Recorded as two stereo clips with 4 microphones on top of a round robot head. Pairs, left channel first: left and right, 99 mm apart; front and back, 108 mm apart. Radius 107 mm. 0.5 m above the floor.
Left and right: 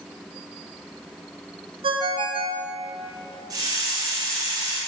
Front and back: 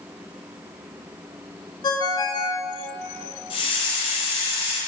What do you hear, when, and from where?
1.8 s a ringtone: 55° right, 0.9 m
3.5 s a hiss: 35° right, 2.5 m